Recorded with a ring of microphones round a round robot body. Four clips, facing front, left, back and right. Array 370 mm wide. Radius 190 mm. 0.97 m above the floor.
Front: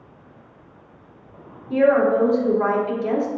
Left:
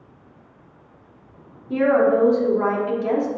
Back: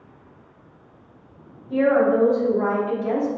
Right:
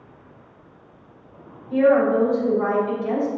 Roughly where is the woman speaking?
Ahead left.